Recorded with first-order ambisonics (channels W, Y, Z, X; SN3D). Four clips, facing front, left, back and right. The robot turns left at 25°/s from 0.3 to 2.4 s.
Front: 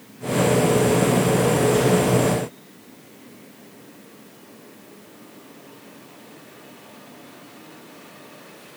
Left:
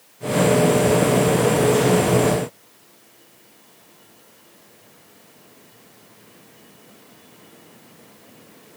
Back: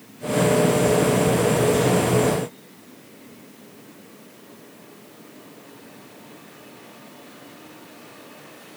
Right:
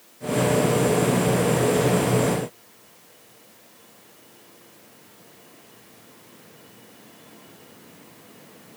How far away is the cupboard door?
I don't hear a cupboard door.